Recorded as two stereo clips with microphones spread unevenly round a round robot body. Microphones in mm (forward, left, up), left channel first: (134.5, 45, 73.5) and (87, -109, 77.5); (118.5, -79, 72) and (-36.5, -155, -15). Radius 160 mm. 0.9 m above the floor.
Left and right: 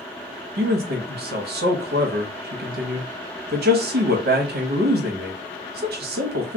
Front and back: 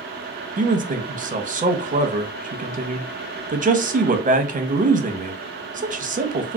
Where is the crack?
No crack in this recording.